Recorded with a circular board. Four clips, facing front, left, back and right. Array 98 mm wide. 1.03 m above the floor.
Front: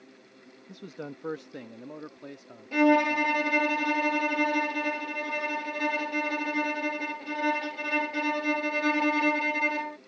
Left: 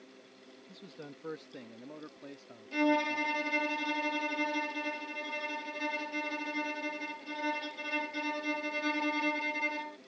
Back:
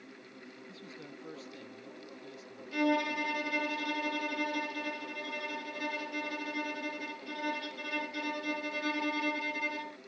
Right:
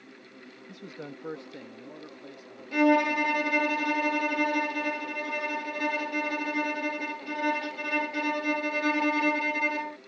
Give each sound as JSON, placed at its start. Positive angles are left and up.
{"t": 0.7, "sound": "a man speaking", "azimuth_deg": -35}
{"t": 2.7, "sound": "a violin", "azimuth_deg": -35}